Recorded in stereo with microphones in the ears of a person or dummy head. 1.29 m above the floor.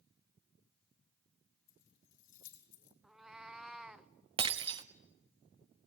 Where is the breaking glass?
25° right (ahead or behind), 1.0 m.